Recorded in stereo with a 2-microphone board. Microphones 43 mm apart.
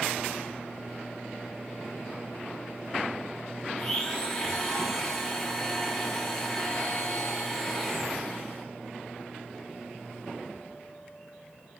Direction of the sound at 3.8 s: 10° left (ahead or behind).